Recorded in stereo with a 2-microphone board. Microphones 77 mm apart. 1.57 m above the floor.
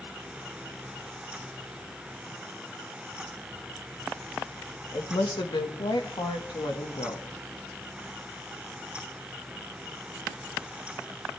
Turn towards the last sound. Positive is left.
turn(degrees=75)  # may be behind; listen again after turning